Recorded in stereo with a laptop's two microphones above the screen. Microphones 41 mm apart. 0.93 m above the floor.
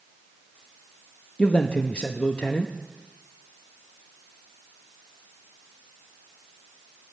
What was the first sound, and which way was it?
A man speaking, 30° left (ahead or behind).